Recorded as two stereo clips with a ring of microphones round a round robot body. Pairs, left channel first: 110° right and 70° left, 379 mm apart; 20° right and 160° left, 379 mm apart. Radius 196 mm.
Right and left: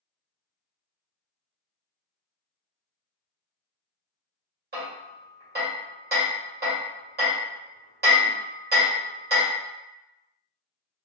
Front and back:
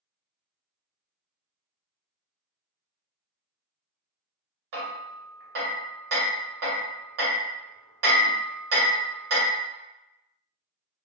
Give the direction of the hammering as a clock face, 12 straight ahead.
8 o'clock.